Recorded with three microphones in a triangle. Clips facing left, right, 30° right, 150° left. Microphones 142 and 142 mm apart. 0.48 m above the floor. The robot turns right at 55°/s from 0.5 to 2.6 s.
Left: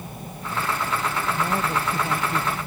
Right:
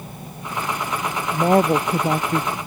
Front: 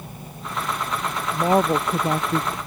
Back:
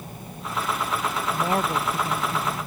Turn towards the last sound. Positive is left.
turn(degrees=-25)